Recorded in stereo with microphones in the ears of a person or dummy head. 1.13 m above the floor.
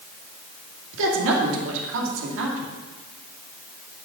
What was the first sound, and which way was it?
A woman speaking, 70° right (ahead or behind).